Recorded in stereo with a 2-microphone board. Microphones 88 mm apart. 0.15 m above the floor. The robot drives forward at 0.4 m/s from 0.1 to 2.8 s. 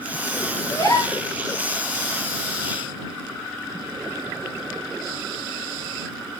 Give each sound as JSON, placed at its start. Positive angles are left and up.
{"t": 0.7, "sound": "a gasp", "side_deg": 40, "distance_m": 6.5}